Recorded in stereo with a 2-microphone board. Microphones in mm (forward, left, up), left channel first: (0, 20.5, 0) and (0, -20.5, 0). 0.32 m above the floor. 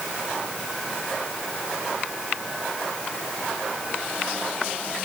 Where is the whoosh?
No whoosh in this recording.